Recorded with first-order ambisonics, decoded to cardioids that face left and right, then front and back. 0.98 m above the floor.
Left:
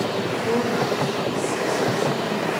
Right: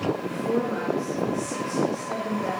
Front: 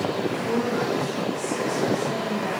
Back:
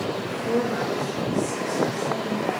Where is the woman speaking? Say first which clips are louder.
Left 4 dB, even; 90° left, 4 m; by 2.5 s 95° left, 5.5 m.